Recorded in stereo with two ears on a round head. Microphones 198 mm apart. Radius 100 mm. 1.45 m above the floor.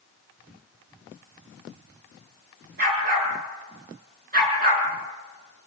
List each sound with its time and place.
2.8 s a dog barking: 40° right (ahead or behind), 7.5 m